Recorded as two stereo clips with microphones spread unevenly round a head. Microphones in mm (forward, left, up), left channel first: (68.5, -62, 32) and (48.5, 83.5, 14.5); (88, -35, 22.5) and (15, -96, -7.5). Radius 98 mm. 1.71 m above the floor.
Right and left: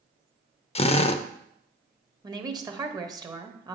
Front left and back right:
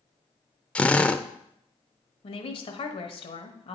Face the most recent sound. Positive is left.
turn(degrees=30)